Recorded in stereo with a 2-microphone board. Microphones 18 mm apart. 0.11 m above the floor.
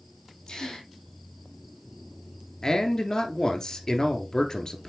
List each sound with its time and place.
0.5 s a gasp: 50° left (ahead or behind), 2 m
2.6 s a man speaking: 40° left (ahead or behind), 1.5 m